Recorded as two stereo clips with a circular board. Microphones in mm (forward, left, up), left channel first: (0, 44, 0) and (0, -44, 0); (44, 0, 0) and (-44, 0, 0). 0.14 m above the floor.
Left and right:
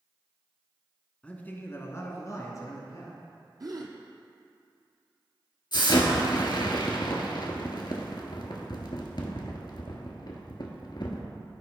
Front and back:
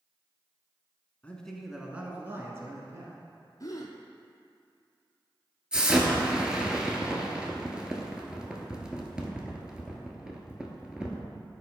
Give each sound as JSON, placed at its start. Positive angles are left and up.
{"t": 1.2, "sound": "a man speaking", "azimuth_deg": 40, "distance_m": 1.0}
{"t": 3.6, "sound": "a gasp", "azimuth_deg": -50, "distance_m": 1.0}
{"t": 5.7, "sound": "an explosion", "azimuth_deg": 100, "distance_m": 1.3}